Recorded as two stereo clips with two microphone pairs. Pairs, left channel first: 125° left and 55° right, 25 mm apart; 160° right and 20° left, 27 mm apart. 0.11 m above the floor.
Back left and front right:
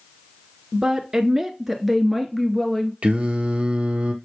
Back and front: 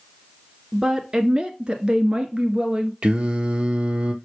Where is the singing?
20° right, 1.0 m.